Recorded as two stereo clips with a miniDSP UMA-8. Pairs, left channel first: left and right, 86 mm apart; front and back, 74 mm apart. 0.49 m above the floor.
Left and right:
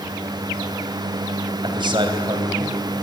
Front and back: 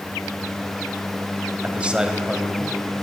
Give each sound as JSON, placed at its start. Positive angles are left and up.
{"t": 1.6, "sound": "a man speaking", "azimuth_deg": -110, "distance_m": 3.0}